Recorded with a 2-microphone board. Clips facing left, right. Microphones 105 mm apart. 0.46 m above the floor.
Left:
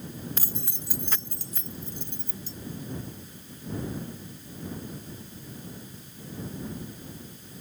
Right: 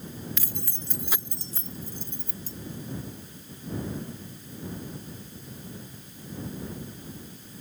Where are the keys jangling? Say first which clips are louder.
Left 1 dB; 40° left (ahead or behind); by 2.5 s 55° right (ahead or behind).